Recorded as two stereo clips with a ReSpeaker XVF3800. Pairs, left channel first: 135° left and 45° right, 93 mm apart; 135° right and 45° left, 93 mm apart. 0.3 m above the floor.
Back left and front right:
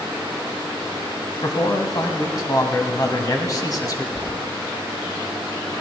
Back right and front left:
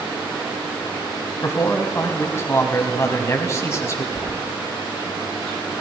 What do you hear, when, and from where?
1.4 s a man speaking: 175° left, 1.6 m
4.2 s keys jangling: 35° left, 0.7 m